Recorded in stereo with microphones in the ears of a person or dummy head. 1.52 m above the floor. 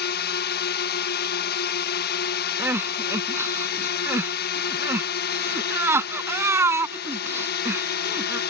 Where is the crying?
15° right (ahead or behind).